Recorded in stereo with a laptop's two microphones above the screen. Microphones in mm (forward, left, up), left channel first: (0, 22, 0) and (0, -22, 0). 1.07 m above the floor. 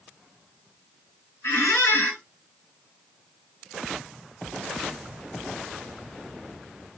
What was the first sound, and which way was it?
A squeak, 60° left (ahead or behind).